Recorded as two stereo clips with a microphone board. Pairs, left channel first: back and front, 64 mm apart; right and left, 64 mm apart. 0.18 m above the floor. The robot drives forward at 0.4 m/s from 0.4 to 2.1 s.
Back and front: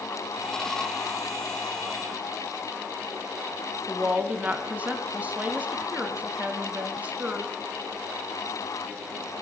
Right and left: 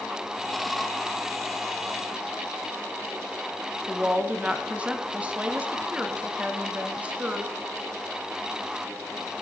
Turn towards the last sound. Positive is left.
turn(degrees=40)